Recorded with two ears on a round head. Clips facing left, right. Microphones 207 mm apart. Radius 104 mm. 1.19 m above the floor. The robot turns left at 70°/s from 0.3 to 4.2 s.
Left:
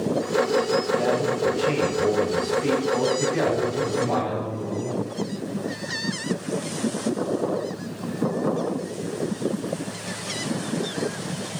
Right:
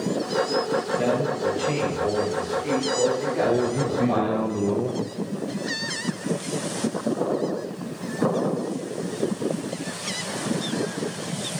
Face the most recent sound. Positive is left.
turn(degrees=-110)